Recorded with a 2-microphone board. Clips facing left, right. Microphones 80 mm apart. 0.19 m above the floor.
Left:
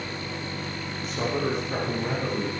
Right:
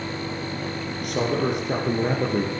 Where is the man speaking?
70° right (ahead or behind), 3.5 m.